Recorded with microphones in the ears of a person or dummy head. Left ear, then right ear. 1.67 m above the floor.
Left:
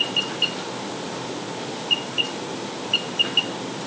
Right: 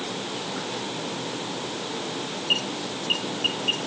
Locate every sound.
Only background noise.